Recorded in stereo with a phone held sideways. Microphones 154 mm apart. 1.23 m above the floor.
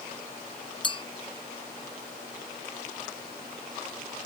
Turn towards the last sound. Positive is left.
turn(degrees=30)  # may be behind; listen again after turning